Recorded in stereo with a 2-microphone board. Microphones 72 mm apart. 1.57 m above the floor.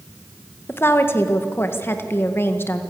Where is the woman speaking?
35° left (ahead or behind), 1.8 m.